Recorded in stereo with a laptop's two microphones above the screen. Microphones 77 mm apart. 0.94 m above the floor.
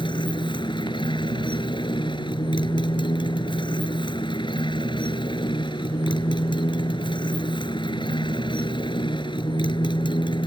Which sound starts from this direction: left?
A motorcycle, at 0.0 s.